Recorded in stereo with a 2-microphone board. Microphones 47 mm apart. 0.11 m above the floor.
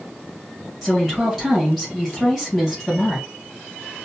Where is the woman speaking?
5° left (ahead or behind), 2.5 m.